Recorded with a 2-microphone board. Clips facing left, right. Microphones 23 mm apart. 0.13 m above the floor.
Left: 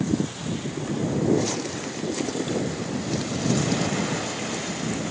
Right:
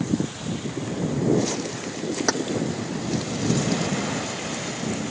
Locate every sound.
2.3 s keys jangling: 70° right (ahead or behind)